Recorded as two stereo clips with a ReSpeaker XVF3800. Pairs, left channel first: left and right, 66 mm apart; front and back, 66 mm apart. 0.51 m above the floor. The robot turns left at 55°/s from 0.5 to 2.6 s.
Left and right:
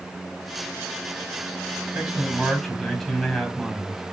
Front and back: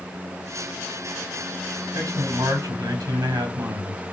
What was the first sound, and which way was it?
A man speaking, 145° right.